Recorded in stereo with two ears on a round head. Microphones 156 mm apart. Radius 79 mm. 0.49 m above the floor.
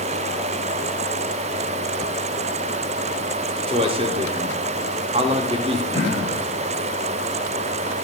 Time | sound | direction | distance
3.7 | a man speaking | 30° right (ahead or behind) | 1.0 m
5.9 | throat clearing | 20° left (ahead or behind) | 5.5 m